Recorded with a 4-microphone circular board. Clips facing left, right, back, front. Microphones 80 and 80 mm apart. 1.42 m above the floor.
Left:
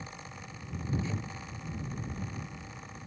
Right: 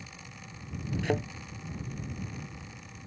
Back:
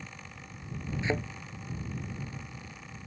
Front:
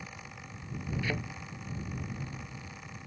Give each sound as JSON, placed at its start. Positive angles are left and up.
{"t": 1.0, "sound": "a thud", "azimuth_deg": -110}